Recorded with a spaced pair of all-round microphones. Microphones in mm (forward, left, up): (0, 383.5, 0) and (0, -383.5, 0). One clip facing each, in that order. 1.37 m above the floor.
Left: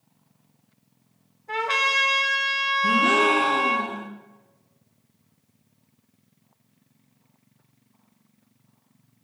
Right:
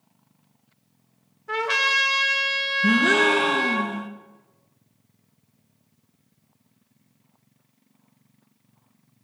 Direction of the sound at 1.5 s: 45° right (ahead or behind).